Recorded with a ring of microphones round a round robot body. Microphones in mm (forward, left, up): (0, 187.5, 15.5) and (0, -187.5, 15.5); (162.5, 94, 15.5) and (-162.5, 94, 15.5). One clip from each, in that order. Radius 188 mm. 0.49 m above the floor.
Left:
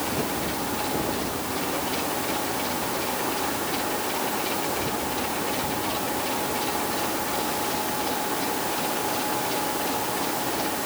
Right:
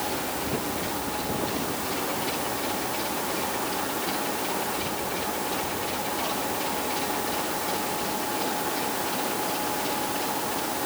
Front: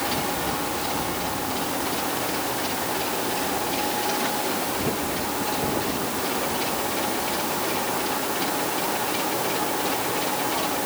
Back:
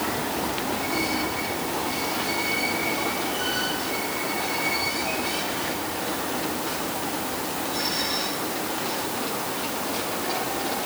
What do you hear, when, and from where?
Only background noise.